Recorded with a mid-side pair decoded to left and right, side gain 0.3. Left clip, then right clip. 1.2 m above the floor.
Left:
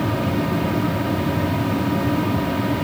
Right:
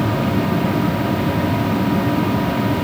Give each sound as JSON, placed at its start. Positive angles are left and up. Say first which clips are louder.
{"t": 0.0, "sound": "a machine running", "louder": "right 3 dB", "azimuth_deg": -45, "distance_m": 0.9}